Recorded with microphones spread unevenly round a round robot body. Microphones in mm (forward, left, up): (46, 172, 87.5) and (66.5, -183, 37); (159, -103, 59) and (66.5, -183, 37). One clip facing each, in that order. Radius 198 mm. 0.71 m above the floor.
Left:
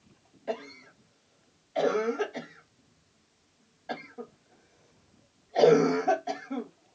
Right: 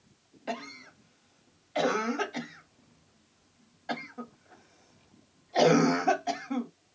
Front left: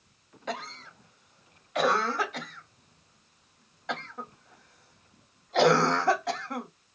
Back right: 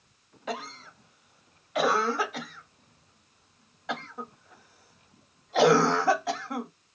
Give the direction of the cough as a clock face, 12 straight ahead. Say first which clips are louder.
Left 3 dB, back right 1 dB; 2 o'clock.